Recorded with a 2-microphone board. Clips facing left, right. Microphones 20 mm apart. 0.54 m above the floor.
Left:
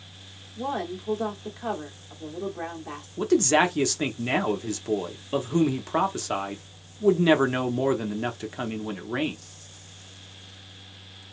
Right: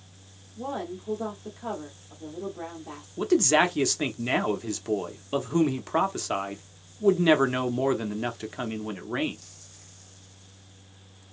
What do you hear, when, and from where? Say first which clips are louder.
0.6 s a woman speaking: left 3 dB; 25° left (ahead or behind), 1.3 m
3.2 s a man speaking: left 1 dB; 5° right (ahead or behind), 0.7 m